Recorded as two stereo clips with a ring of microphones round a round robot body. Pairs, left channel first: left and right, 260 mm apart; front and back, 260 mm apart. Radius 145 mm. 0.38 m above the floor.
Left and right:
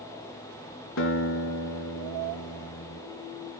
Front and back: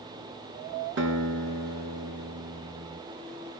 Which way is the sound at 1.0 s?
135° left.